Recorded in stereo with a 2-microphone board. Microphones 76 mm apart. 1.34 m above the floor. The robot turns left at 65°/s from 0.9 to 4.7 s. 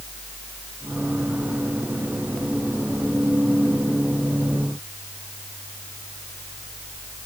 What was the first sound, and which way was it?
Only background noise.